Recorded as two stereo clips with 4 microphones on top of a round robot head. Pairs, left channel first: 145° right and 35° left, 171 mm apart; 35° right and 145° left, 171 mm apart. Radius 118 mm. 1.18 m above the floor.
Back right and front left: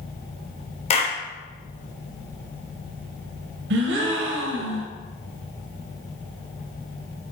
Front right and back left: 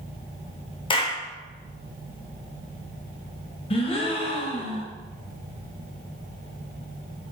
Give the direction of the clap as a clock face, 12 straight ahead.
3 o'clock.